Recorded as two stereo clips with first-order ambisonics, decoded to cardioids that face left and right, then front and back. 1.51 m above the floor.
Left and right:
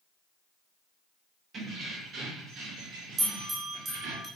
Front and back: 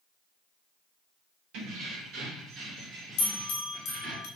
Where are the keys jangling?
155° right, 1.4 m; by 4.2 s 105° right, 1.8 m.